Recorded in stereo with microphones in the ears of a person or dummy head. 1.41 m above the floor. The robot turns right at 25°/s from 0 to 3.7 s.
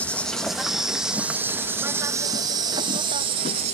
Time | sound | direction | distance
0.0 | an insect | 10° left (ahead or behind) | ?